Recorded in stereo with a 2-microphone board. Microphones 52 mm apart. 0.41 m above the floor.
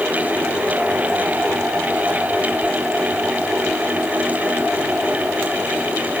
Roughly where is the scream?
I don't hear a scream.